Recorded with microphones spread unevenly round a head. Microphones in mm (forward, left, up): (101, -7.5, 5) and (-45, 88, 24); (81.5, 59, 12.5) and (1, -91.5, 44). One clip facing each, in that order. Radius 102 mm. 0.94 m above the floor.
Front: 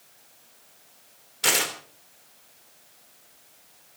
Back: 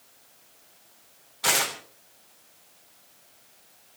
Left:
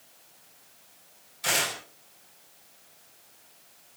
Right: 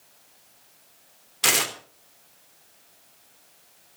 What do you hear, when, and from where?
1.4 s tearing paper: 105° right, 3 m